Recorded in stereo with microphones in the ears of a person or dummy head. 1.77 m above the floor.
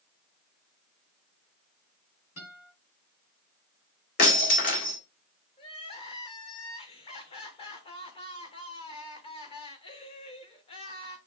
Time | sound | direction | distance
2.4 | a guitar | 50° left (ahead or behind) | 6 m
4.2 | breaking glass | 50° left (ahead or behind) | 2.5 m
5.6 | crying | 35° left (ahead or behind) | 1.3 m